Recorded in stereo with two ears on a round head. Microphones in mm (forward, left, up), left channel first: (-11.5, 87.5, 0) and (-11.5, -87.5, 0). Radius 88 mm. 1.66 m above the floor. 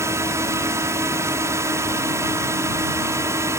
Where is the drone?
15° right (ahead or behind).